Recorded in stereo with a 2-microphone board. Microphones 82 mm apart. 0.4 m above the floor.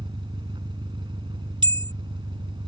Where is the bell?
70° right (ahead or behind).